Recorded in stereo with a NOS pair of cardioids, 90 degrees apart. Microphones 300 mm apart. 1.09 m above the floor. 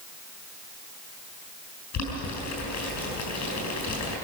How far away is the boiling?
About 6 m.